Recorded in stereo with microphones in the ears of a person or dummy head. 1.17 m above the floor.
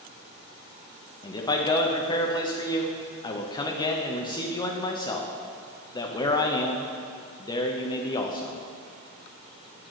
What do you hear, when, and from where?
1.2 s a man speaking: 20° left (ahead or behind), 0.7 m